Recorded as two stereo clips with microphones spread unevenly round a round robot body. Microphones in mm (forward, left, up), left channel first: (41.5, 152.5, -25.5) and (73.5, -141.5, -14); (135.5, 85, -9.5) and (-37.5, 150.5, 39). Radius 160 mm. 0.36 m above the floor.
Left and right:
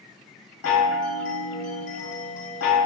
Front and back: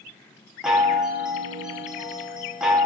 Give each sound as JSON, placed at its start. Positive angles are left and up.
{"t": 0.6, "sound": "a chime", "azimuth_deg": 65, "distance_m": 0.6}